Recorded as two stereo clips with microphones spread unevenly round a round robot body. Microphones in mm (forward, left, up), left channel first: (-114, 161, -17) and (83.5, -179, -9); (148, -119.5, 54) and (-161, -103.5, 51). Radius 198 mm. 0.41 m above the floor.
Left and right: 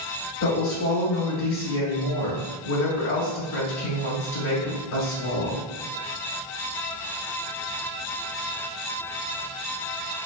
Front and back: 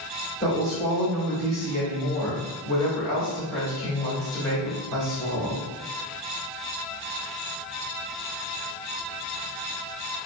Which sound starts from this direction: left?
A woman speaking, at 0.4 s.